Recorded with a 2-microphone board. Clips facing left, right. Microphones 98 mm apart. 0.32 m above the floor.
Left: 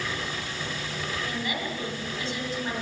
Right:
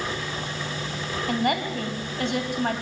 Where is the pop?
I don't hear a pop.